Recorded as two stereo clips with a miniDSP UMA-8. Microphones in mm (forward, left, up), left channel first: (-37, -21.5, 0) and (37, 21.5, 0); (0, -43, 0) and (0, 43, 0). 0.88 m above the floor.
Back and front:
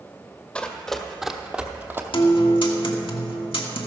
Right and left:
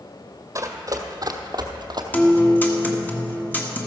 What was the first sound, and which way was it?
Running footsteps, 135° left.